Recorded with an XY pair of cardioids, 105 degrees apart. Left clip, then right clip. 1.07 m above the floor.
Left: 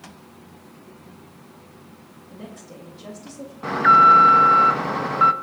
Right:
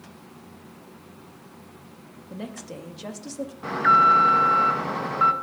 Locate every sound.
2.3 s a woman speaking: 45° right, 1.6 m
3.6 s an alarm: 20° left, 0.8 m